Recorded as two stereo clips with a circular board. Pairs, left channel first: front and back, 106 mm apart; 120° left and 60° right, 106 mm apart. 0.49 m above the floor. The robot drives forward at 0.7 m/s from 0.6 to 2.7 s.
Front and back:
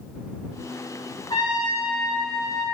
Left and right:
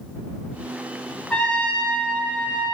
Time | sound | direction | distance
1.3 | a trumpet | 40° left | 4 m